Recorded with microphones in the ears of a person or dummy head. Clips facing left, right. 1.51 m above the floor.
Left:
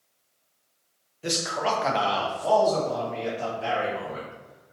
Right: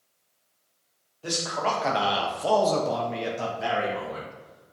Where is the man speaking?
25° left (ahead or behind), 0.8 m; by 4.7 s 70° right (ahead or behind), 1.5 m.